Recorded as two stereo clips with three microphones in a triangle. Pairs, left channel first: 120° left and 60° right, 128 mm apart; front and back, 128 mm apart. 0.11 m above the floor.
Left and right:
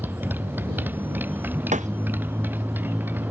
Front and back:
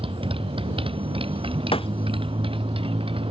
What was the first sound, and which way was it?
A motorcycle, 135° right.